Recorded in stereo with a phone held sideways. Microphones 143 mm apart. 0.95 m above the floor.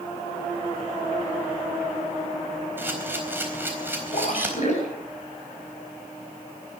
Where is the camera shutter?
15° right (ahead or behind), 4 m.